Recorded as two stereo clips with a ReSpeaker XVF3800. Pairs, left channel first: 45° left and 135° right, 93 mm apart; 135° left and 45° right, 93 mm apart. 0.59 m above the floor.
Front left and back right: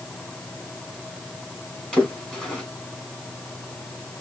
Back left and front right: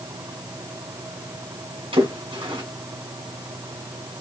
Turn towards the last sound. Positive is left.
turn(degrees=-35)